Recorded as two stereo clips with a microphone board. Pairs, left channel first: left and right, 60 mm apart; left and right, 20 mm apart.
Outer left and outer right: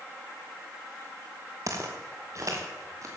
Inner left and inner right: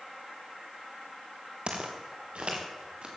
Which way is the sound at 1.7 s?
60° right (ahead or behind).